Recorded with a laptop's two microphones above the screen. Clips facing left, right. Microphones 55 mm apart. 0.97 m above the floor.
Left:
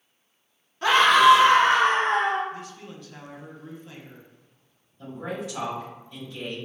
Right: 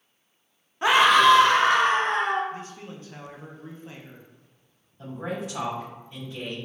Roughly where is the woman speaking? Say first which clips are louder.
Right 1 dB; right.